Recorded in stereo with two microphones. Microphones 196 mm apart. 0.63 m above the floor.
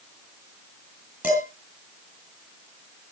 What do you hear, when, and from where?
1.2 s dishes clattering: 10° right (ahead or behind), 7 m